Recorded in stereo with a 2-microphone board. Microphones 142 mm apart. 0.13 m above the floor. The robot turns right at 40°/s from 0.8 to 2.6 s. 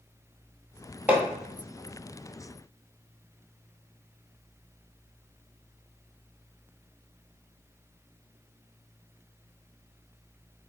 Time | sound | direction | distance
1.1 | hammering | 10° right (ahead or behind) | 1.5 m